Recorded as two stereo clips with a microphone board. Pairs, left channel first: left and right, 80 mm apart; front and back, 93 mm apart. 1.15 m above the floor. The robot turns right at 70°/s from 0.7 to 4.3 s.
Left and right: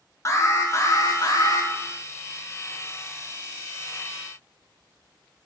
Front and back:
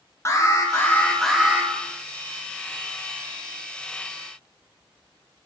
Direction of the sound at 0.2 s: 50° left.